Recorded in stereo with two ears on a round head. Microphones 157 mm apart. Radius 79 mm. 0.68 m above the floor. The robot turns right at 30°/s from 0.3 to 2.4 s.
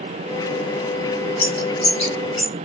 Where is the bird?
60° left (ahead or behind), 3 m; by 2.7 s 85° left, 3 m.